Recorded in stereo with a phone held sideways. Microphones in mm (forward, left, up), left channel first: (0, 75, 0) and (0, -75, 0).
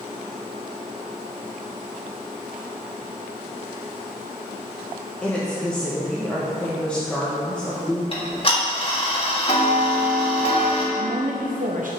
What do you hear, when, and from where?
5.2 s a woman speaking: 5° left (ahead or behind), 1.2 m
8.1 s ticking: 35° left (ahead or behind), 1.6 m
10.9 s a woman speaking: 60° right (ahead or behind), 0.7 m